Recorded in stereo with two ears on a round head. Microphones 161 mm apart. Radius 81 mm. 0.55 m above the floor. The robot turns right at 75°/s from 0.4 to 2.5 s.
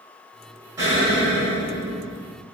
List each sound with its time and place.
0.8 s an explosion: 25° right, 1.9 m; by 2.3 s 90° left, 1.9 m